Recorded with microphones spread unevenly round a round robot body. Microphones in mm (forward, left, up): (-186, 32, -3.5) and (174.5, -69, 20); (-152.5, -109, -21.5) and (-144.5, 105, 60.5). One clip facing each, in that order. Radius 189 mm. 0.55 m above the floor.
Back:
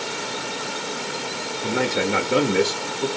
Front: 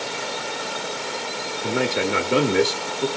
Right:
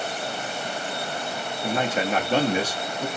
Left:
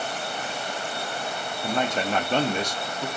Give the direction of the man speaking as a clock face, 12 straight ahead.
4 o'clock.